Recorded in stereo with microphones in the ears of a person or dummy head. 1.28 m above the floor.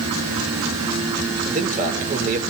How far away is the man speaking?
About 5 m.